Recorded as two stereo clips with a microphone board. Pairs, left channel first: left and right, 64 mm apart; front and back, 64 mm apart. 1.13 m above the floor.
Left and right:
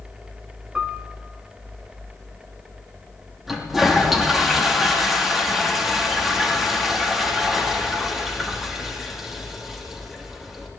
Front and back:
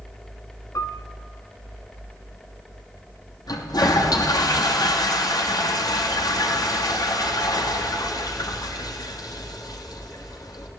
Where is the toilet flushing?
5° right, 3 m.